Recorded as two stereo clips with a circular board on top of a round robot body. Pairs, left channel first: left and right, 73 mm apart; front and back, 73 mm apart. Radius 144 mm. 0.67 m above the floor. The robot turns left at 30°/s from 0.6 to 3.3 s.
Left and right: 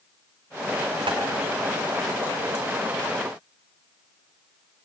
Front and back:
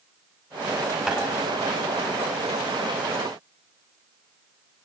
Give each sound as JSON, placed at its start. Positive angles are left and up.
{"t": 1.1, "sound": "tapping", "azimuth_deg": -95, "distance_m": 4.0}